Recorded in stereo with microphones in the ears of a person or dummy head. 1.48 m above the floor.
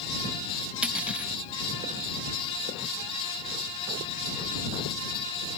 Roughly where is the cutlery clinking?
Centre.